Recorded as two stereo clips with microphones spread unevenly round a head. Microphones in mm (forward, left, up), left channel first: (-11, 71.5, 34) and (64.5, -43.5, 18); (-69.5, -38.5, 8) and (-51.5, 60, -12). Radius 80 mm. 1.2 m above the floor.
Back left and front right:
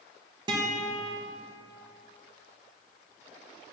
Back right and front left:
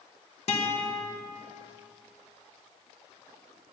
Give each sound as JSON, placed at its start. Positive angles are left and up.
{"t": 0.5, "sound": "a guitar", "azimuth_deg": -120, "distance_m": 1.2}